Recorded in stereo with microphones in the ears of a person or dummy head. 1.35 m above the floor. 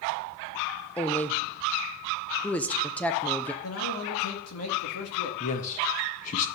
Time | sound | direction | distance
1.0 | a woman speaking | 5° left (ahead or behind) | 0.7 m
3.6 | a man speaking | 85° left | 2 m
5.4 | a man speaking | 45° left (ahead or behind) | 1.5 m